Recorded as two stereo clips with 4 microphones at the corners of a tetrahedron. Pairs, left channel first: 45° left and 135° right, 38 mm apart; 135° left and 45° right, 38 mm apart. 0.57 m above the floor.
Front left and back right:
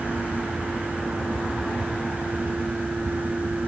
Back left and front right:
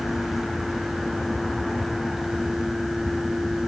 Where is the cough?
No cough in this recording.